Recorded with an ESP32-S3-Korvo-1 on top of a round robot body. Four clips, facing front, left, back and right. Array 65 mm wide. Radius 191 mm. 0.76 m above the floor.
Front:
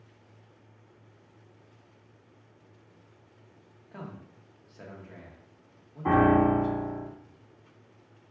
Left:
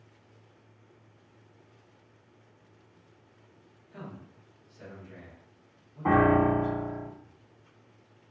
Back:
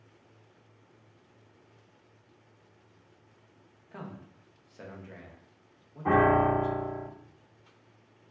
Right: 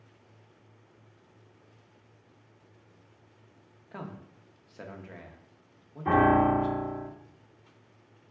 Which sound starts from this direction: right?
A man speaking, at 3.9 s.